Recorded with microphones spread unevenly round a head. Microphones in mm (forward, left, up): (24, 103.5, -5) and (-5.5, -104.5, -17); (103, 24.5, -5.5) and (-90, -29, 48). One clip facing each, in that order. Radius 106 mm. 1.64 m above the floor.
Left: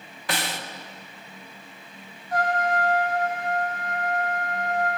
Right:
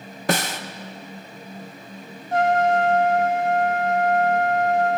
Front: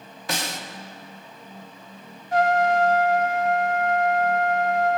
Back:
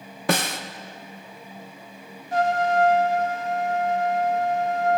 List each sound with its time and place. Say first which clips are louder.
0.3 s a snare drum: right 7 dB, back 7 dB; 145° right, 1.2 m
2.3 s a trumpet: right 6 dB, front 2 dB; 165° right, 1.1 m